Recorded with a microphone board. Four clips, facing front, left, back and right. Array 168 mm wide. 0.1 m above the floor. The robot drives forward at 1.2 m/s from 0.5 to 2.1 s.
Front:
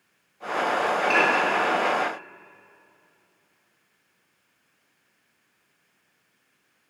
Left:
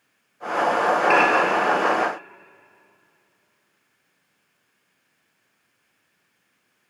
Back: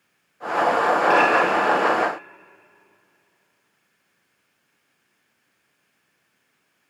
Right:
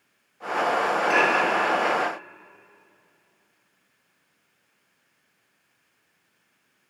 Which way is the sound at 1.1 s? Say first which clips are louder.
Left 3 dB, back 4 dB; 125° left.